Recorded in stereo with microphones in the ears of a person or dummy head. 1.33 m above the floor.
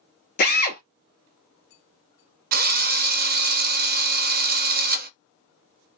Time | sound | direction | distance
0.4 | a drill | 45° left (ahead or behind) | 0.9 m
2.5 | a drill | 40° right (ahead or behind) | 0.5 m